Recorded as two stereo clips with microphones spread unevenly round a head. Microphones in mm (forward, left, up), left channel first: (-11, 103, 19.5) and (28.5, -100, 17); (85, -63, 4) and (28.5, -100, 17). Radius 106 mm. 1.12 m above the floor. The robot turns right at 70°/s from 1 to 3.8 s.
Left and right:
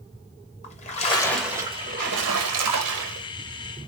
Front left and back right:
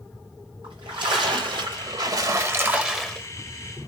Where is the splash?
160° left, 0.9 m; by 3.3 s 40° right, 0.9 m.